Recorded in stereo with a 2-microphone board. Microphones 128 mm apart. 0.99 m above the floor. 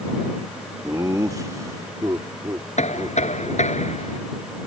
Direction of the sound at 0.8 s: 25° right (ahead or behind).